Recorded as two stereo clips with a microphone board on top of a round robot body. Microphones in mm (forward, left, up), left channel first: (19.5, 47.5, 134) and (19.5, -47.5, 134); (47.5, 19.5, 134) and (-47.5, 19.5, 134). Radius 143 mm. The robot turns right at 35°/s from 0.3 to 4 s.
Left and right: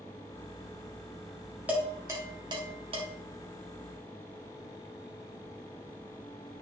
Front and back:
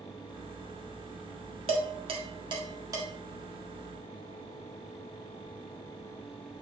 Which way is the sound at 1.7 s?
165° right.